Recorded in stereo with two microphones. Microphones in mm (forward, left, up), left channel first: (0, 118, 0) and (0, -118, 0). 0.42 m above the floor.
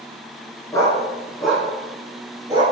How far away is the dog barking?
About 2 m.